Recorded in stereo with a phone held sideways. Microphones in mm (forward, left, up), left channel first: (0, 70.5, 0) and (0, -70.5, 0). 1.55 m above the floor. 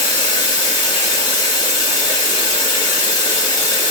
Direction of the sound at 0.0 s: 40° left (ahead or behind).